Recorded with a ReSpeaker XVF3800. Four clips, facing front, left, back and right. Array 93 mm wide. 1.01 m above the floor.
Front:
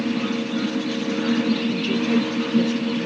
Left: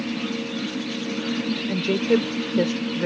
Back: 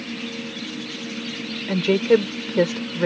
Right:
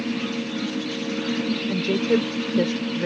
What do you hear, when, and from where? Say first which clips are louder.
1.7 s a woman speaking: left 1 dB, back 4 dB; straight behind